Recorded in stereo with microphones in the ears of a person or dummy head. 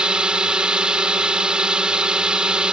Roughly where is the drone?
Centre.